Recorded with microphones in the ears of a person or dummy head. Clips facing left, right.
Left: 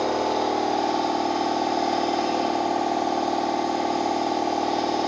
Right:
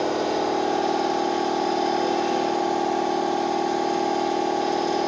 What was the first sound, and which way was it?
A machine running, 15° right (ahead or behind).